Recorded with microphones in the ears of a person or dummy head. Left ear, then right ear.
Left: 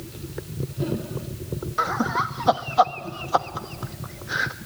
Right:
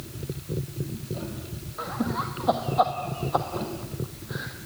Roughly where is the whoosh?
No whoosh in this recording.